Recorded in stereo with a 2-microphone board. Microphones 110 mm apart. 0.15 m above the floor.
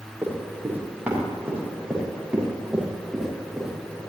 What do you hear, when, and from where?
0.2 s running footsteps: 20° right (ahead or behind), 5 m; by 4.0 s centre (ahead or behind), 7 m